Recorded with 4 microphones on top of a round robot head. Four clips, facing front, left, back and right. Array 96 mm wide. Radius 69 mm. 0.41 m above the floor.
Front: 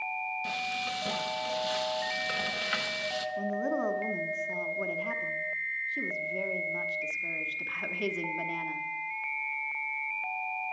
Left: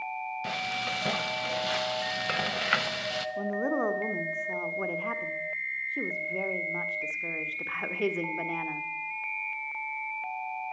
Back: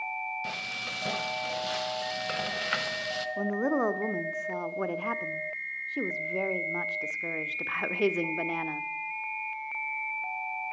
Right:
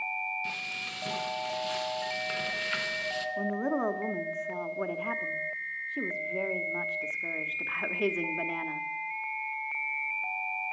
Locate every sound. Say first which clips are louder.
0.4 s frying: left 6 dB, front 3 dB; 105° left, 1.0 m
3.4 s a woman speaking: left 1 dB, back 4 dB; 170° left, 0.9 m